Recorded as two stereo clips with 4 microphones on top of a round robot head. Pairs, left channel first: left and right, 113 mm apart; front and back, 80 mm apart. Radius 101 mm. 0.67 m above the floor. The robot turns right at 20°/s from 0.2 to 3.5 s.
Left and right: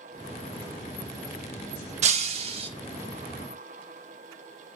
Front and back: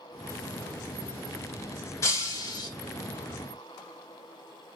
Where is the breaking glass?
60° right, 0.5 m; by 2.7 s 50° right, 0.5 m.